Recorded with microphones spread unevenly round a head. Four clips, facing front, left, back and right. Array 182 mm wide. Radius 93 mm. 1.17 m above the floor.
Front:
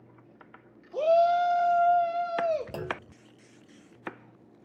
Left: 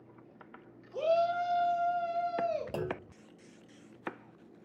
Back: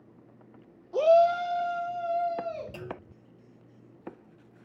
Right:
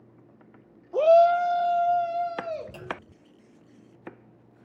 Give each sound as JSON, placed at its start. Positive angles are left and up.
{"t": 0.9, "sound": "a shout", "azimuth_deg": -110, "distance_m": 1.1}
{"t": 2.7, "sound": "a clunk", "azimuth_deg": 50, "distance_m": 0.7}